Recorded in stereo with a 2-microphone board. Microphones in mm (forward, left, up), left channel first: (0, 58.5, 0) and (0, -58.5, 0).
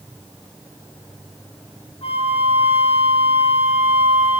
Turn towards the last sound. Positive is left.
turn(degrees=65)  # may be behind; listen again after turning